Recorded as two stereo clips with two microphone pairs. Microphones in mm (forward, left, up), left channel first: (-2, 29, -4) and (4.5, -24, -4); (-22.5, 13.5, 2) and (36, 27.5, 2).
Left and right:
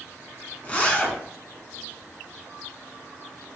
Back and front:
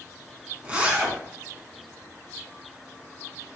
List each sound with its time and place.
0.6 s a zipper: 60° left, 1.2 m